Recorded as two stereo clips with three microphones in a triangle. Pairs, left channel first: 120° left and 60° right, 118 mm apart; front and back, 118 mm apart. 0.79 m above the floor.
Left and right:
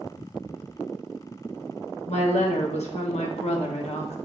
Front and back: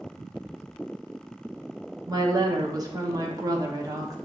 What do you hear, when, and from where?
2.1 s a woman speaking: 125° left, 1.0 m